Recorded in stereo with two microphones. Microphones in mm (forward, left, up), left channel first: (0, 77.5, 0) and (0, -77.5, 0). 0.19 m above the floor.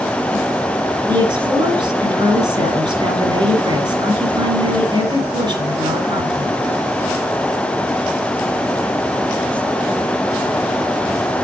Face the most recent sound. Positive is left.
turn(degrees=-35)  # may be behind; listen again after turning